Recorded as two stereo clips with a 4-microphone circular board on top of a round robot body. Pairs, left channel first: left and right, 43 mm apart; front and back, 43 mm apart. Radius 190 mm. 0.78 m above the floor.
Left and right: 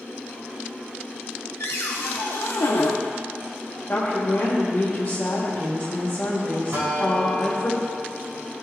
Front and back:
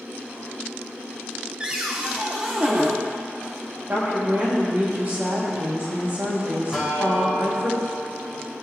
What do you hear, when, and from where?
1.6 s a cupboard door: 110° left, 0.5 m
3.9 s a woman speaking: 140° left, 3 m
6.7 s a guitar: 100° right, 3.5 m